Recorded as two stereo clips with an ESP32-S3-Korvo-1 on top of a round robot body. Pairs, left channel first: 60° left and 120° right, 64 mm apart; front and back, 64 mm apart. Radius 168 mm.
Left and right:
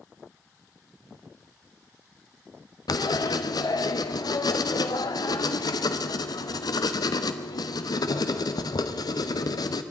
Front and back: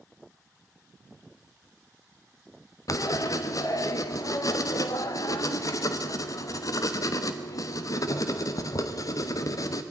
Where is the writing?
40° left, 1.1 m.